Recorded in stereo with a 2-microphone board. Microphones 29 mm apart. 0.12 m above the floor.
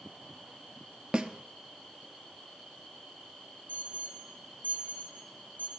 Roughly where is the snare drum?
Right.